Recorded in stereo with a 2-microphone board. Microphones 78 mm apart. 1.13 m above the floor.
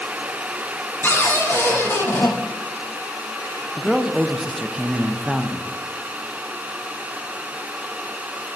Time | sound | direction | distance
1.0 | a cupboard door | 30° left (ahead or behind) | 1.1 m
3.8 | a man speaking | 5° right (ahead or behind) | 0.5 m